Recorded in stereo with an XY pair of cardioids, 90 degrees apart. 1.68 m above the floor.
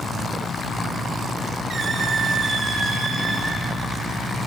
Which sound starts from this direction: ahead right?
A squeak, at 1.7 s.